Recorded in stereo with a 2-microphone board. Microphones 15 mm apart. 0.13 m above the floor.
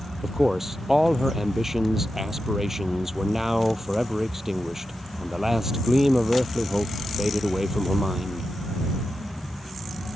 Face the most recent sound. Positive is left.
turn(degrees=-20)  # may be behind; listen again after turning